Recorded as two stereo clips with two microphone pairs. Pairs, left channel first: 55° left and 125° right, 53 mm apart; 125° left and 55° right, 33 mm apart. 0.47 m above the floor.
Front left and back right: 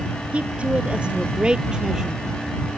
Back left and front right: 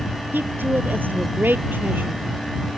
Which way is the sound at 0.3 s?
60° right.